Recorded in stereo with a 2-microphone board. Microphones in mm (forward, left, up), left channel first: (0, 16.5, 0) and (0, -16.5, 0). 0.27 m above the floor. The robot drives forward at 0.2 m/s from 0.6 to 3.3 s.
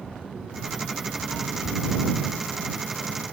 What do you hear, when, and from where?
1.6 s whispering: 35° left (ahead or behind), 1.2 m